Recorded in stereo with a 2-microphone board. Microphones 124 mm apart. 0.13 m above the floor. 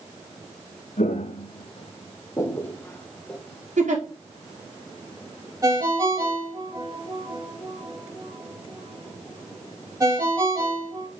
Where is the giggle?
80° right, 3.5 m.